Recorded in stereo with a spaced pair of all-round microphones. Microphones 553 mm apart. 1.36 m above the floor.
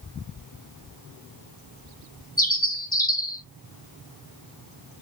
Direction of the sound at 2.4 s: 15° left (ahead or behind).